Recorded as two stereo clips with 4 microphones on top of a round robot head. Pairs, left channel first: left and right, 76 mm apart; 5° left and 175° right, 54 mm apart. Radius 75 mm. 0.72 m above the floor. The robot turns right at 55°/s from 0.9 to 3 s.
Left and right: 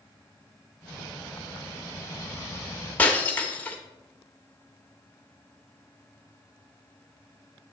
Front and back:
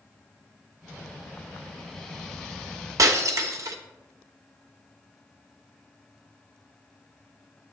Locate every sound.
3.0 s breaking glass: 165° left, 0.7 m